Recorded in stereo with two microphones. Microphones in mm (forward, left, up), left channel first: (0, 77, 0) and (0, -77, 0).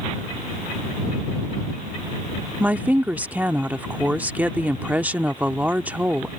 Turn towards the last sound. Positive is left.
turn(degrees=-10)  # may be behind; listen again after turning